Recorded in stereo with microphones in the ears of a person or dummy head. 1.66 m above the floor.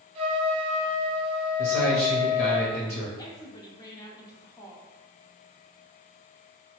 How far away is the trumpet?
About 0.7 m.